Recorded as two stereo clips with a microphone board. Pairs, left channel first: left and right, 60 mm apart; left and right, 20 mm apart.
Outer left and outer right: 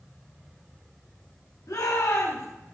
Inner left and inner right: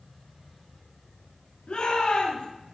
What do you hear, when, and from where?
1.7 s a shout: 75° left (ahead or behind), 6.5 m